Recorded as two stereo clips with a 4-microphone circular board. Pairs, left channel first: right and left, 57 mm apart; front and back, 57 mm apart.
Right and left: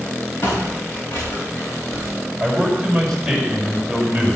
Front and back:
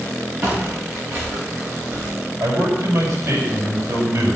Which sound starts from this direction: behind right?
Footsteps, at 0.4 s.